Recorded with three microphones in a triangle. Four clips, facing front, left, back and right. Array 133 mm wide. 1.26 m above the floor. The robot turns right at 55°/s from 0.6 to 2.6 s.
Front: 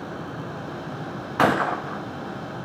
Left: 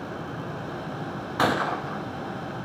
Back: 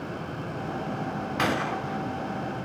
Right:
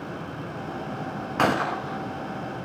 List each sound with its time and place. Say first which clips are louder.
1.4 s a gunshot: right 1 dB, front 8 dB; 15° right, 1.0 m; by 2.0 s 20° left, 1.0 m